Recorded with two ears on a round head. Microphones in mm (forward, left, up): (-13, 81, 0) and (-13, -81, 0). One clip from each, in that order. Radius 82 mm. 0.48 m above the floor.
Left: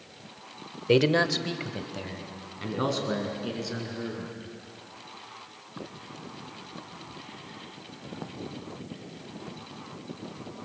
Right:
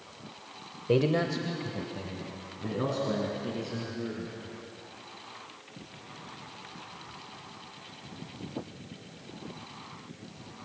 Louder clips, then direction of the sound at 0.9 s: Left 4 dB; 55° left (ahead or behind).